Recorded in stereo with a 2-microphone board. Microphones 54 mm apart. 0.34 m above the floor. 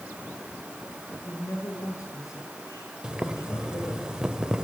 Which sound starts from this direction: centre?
Boiling, at 3.0 s.